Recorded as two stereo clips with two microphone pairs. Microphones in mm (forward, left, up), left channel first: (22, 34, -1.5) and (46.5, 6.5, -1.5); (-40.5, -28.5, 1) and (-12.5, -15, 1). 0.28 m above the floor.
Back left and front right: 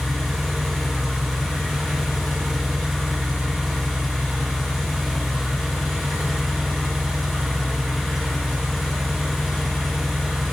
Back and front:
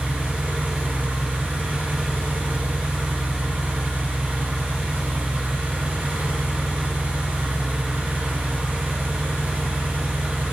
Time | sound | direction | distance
0.0 | an engine running | 40° left | 1.2 m